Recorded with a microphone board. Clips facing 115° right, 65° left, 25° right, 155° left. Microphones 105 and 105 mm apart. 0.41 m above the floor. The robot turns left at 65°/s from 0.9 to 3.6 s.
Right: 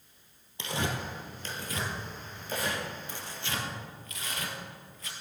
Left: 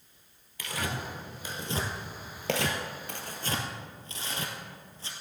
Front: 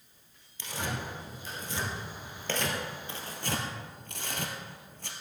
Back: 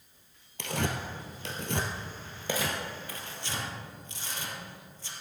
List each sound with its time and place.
0.6 s tearing paper: 175° right, 2 m; by 5.1 s 10° left, 2 m